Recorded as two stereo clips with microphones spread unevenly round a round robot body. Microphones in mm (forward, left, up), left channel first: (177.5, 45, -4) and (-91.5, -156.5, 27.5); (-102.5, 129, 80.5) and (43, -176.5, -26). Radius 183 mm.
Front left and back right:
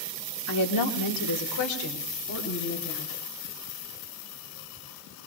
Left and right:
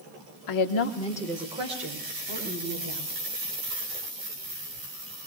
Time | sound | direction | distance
0.5 | a woman speaking | 85° left | 1.2 m